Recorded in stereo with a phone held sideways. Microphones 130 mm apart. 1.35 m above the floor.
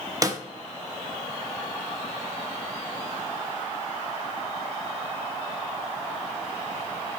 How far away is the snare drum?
About 0.9 m.